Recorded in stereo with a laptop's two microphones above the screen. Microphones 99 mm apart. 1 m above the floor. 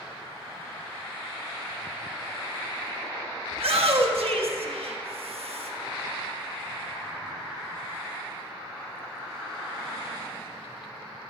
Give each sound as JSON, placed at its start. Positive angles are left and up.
{"t": 3.5, "sound": "a shout", "side_deg": -80, "distance_m": 1.2}